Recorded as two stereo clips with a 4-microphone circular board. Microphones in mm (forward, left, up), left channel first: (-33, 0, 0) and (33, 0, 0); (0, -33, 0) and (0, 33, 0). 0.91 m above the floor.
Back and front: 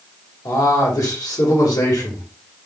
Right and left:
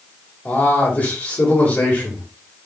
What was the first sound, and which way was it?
A man speaking, 150° right.